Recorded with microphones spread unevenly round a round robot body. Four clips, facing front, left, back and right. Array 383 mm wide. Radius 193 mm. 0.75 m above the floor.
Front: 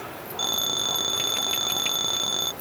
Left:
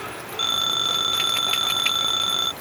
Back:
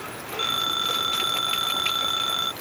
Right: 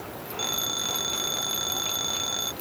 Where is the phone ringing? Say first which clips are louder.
Left 7 dB, back 5 dB; 15° left.